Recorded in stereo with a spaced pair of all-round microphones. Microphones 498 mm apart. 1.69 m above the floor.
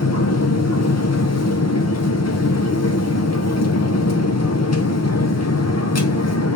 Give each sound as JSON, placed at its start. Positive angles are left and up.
{"t": 0.0, "sound": "a machine running", "side_deg": 30, "distance_m": 0.8}